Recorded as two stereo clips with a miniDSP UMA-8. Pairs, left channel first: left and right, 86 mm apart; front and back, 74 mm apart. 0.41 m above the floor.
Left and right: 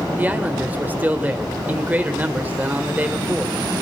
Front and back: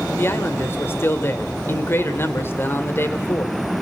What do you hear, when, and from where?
0.2 s a man speaking: 30° right, 1.6 m